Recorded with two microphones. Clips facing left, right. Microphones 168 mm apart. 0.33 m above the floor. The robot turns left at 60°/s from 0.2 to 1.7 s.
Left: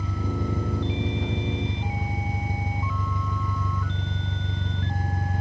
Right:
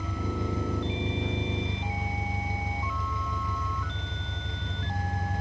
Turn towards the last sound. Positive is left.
turn(degrees=55)